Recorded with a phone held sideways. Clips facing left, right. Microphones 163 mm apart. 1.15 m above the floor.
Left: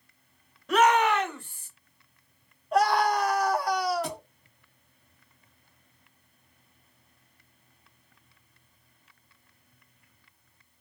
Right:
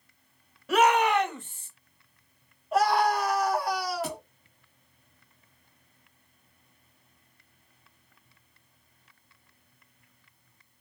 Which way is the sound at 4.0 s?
Centre (ahead or behind).